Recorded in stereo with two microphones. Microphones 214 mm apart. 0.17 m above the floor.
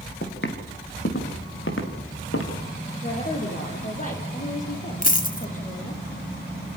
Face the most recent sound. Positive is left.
turn(degrees=40)  # may be behind; listen again after turning